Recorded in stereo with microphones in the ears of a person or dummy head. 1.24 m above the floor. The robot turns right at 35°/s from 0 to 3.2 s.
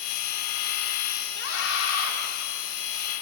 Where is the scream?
70° left (ahead or behind), 4 m; by 2.1 s 80° left, 4 m.